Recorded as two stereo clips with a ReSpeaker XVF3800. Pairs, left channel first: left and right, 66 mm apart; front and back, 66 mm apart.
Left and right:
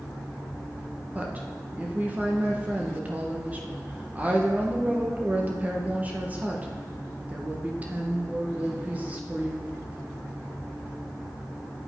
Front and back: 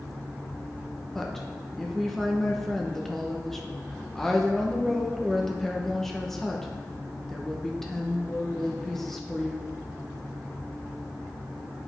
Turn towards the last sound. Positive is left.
turn(degrees=-80)